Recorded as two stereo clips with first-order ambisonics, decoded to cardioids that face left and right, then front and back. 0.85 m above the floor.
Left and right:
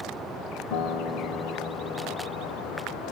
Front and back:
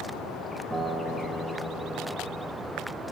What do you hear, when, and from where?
0.7 s a guitar: 90° left, 1.0 m